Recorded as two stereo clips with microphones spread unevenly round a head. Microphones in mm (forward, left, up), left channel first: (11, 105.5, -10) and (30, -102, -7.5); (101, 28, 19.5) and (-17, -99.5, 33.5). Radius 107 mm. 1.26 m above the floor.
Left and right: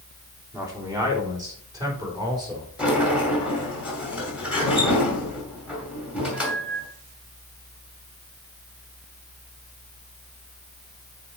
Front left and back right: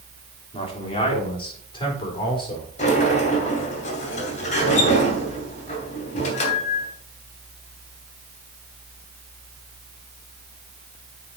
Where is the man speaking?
10° right, 3 m; by 2.7 s 15° right, 4.5 m.